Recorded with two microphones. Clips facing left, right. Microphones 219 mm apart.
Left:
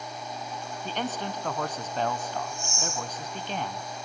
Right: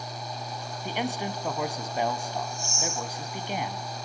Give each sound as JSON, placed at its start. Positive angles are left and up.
{"t": 0.8, "sound": "a man speaking", "side_deg": -10, "distance_m": 1.4}